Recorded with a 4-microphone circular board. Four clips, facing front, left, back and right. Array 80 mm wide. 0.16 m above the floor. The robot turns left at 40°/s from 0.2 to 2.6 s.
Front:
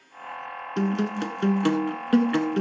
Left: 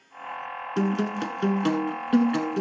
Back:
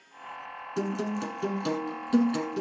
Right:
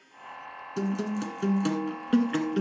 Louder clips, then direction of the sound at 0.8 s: Left 4 dB, front 4 dB; 55° left.